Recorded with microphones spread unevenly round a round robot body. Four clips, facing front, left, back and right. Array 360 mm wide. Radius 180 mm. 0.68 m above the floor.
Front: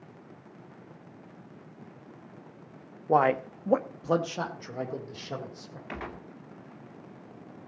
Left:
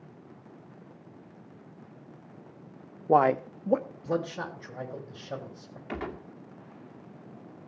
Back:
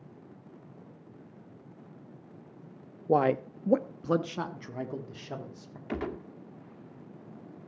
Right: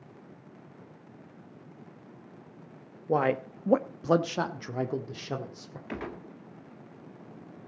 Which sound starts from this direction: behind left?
A man speaking, at 3.1 s.